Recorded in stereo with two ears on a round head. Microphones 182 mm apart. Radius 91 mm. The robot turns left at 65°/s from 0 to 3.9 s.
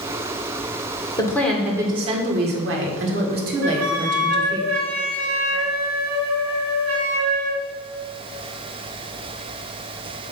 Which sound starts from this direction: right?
A flute, at 3.6 s.